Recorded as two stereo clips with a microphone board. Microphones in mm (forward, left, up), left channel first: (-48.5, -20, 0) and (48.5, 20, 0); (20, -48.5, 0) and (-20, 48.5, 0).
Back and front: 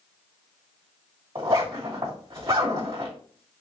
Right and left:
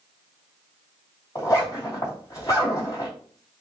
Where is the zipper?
15° right, 2.5 m.